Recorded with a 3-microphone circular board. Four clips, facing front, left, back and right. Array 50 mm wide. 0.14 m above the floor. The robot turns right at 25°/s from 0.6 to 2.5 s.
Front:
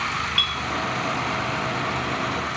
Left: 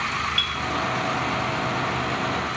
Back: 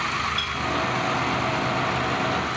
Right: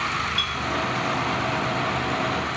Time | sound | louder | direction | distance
0.4 | a clink | even, front 3 dB | 30° left | 2.5 m